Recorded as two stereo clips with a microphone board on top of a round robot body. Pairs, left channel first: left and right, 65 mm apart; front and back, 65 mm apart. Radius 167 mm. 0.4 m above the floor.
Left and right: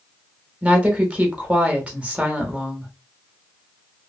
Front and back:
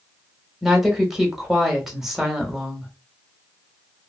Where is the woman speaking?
110° right, 1.3 m.